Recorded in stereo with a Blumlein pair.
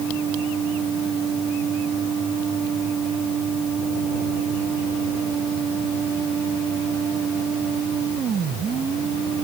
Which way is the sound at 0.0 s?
25° right.